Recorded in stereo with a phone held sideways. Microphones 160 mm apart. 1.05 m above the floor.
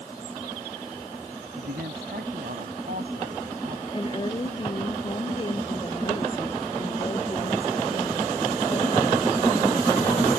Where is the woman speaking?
30° left (ahead or behind).